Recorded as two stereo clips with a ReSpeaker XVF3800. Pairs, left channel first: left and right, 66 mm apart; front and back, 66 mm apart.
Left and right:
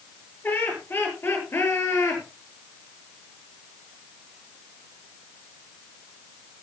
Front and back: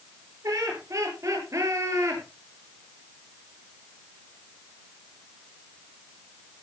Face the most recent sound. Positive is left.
turn(degrees=135)